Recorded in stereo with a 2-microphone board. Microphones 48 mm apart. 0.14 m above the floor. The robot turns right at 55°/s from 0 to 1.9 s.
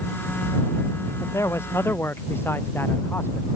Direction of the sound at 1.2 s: 90° left.